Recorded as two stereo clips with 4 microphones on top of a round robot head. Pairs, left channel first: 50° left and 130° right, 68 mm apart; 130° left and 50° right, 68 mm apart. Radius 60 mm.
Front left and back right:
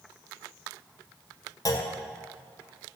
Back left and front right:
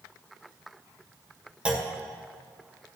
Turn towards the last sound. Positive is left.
turn(degrees=25)